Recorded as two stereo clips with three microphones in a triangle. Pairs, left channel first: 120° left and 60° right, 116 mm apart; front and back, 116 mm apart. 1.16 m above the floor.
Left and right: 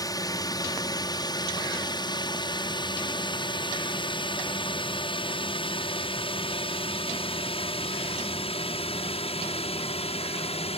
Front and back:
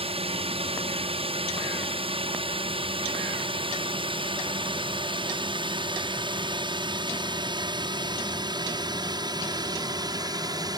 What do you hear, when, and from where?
0.0 s a drone: 170° left; by 10.8 s 130° left